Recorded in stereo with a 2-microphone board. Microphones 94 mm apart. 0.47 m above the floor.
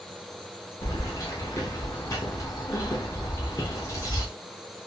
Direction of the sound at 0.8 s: 35° left (ahead or behind).